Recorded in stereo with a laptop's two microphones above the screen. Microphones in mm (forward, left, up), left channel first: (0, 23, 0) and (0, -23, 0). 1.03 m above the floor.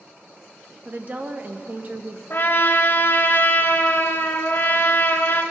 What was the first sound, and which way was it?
A woman speaking, 40° right (ahead or behind).